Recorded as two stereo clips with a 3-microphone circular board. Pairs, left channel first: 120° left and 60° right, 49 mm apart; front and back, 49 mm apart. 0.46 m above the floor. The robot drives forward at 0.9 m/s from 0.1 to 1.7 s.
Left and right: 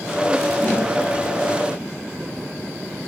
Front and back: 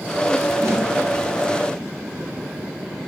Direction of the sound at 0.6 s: 175° left.